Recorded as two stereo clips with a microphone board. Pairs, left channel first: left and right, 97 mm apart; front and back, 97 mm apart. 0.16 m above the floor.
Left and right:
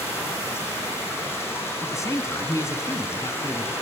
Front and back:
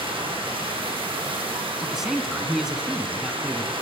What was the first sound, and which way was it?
Running water, 155° left.